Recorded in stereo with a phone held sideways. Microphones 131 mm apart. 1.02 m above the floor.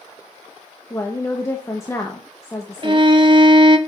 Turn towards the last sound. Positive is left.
turn(degrees=-40)  # may be behind; listen again after turning